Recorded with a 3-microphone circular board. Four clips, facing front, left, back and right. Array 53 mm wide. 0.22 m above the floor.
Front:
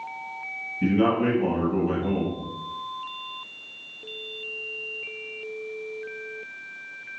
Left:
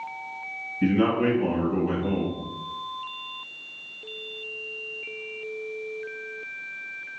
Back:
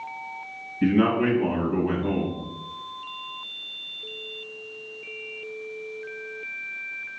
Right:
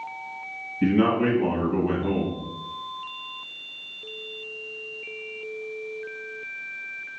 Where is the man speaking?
145° right, 1.0 m.